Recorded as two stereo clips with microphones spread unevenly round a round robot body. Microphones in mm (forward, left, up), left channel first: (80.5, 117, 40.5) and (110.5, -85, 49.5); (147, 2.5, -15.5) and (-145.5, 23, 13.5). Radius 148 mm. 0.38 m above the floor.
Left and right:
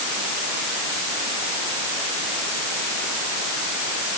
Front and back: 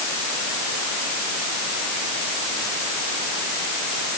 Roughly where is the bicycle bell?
No bicycle bell in this recording.